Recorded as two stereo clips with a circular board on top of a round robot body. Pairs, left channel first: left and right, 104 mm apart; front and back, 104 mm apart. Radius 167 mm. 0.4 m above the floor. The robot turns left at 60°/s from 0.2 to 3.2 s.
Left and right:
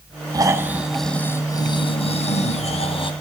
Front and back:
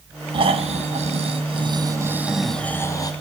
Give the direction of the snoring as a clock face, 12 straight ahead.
5 o'clock.